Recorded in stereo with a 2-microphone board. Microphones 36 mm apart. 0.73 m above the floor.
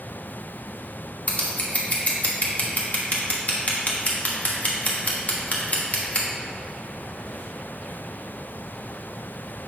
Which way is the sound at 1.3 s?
40° left (ahead or behind).